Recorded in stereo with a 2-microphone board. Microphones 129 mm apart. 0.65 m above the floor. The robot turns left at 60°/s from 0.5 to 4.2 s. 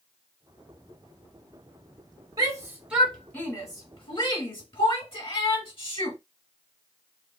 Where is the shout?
30° right (ahead or behind), 1.4 m; by 6.2 s 45° left (ahead or behind), 1.4 m.